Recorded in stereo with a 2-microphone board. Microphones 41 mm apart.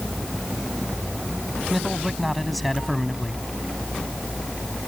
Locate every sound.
1.7 s a man speaking: 5° left (ahead or behind)